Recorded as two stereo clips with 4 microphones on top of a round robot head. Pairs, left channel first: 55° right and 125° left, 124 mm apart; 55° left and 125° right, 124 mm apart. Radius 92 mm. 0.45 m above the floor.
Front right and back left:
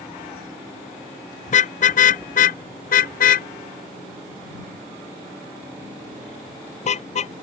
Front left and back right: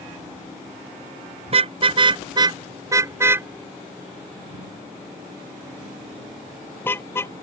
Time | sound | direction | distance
1.5 | a car horn | 80° right | ?